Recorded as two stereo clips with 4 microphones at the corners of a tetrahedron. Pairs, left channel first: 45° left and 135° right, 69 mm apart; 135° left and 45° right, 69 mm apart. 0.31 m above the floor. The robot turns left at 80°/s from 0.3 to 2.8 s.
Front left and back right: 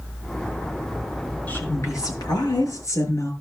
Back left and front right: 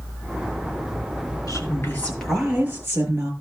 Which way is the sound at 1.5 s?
115° left.